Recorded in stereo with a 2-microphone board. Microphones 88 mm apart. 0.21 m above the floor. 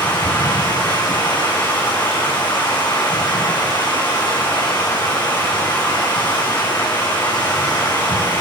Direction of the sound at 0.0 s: 25° left (ahead or behind).